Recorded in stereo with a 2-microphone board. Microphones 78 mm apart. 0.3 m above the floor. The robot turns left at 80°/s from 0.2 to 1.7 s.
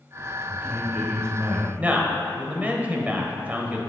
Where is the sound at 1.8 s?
20° right (ahead or behind), 1.0 m.